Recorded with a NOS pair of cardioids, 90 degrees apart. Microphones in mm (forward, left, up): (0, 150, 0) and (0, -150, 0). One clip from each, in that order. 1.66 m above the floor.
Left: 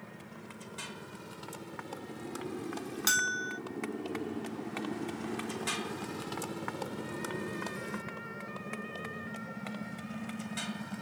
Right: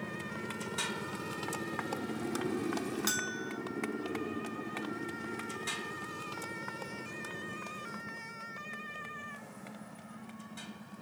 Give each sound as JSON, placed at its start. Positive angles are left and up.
{"t": 0.0, "sound": "a motorcycle", "azimuth_deg": -55}
{"t": 3.1, "sound": "a bell", "azimuth_deg": 25}